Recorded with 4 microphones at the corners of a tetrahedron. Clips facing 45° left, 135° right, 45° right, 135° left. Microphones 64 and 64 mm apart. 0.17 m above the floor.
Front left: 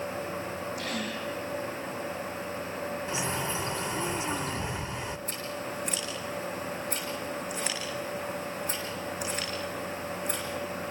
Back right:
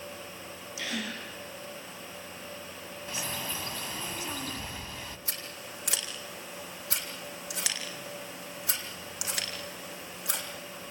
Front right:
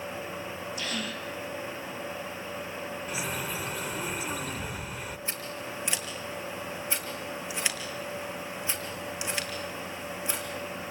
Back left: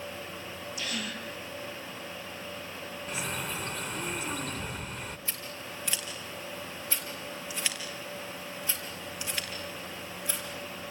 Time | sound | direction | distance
0.8 | a gasp | 140° right | 4.5 m
3.1 | a bird | 40° left | 1.0 m
5.3 | scissors | 115° right | 4.5 m